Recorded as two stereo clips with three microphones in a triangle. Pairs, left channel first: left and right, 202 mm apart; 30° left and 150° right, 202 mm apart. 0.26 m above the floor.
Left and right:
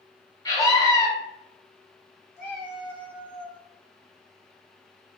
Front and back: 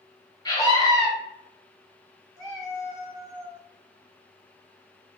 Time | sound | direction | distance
0.5 | a scream | 55° left | 0.9 m
2.4 | a cat meowing | 105° left | 1.1 m